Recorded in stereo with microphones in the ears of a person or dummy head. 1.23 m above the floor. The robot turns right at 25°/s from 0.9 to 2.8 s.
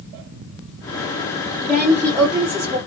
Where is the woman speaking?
10° right (ahead or behind), 0.8 m; by 2.8 s 35° right (ahead or behind), 0.8 m.